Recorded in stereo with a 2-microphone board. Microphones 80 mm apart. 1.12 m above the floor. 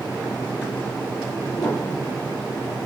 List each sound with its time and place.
1.6 s a piano: 35° left (ahead or behind), 1.2 m